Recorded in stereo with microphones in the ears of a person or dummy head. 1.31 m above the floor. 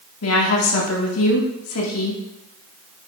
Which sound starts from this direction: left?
A woman speaking, at 0.2 s.